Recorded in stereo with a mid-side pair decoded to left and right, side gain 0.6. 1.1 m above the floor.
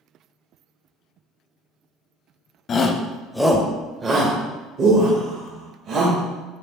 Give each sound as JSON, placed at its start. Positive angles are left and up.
{"t": 2.7, "sound": "a shout", "azimuth_deg": 40, "distance_m": 0.7}